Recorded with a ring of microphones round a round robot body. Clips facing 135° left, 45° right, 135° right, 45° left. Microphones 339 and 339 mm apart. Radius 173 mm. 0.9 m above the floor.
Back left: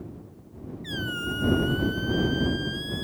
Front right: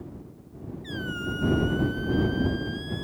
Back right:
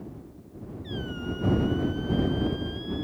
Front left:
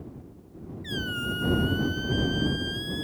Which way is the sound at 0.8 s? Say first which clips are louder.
Even, back right 1 dB; 65° left.